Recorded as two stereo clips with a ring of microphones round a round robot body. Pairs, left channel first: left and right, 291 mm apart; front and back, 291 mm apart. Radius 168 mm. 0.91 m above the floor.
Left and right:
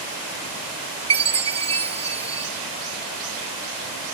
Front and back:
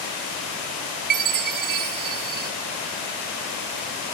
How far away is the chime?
About 1.2 m.